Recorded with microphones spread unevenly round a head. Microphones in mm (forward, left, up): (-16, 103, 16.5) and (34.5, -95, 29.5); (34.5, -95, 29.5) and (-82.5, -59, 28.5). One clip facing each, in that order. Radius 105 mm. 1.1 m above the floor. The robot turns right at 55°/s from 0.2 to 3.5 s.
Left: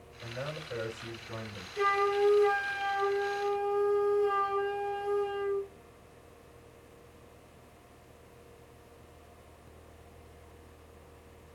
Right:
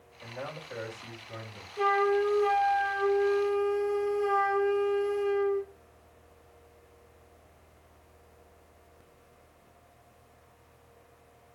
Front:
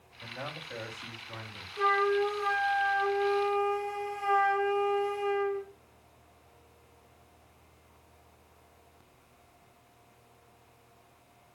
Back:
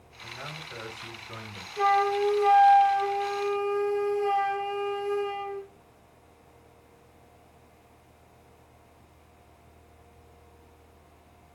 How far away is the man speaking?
About 6.5 m.